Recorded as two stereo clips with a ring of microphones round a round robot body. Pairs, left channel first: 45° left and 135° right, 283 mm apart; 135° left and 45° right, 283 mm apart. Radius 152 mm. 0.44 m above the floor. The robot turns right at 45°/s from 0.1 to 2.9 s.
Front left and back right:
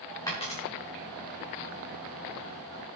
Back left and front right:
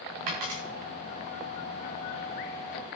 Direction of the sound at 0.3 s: 35° right.